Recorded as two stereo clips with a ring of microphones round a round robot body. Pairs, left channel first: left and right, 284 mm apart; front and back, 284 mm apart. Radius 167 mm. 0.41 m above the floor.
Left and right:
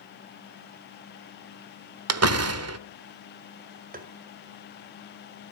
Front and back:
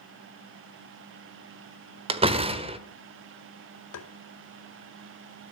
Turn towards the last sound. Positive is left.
turn(degrees=-30)